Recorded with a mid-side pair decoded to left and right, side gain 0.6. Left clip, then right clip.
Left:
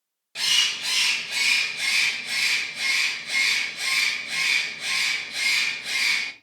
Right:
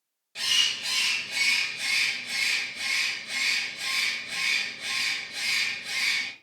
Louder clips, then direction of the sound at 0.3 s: Left 3 dB; 35° left.